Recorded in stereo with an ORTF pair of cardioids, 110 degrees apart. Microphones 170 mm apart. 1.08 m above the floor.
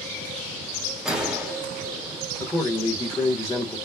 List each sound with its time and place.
1.1 s a gunshot: 5° right, 1.0 m
2.4 s a man speaking: 5° left, 1.2 m